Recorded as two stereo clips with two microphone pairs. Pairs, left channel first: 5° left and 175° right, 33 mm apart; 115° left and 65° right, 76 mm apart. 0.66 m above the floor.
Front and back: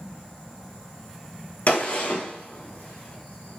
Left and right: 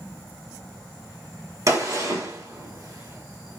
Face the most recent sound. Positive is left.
turn(degrees=-25)